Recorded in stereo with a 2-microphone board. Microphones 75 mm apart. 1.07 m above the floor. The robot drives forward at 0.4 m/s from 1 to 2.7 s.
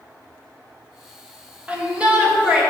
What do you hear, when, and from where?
1.7 s a shout: 20° right (ahead or behind), 1.3 m; by 2.6 s 15° right (ahead or behind), 1.6 m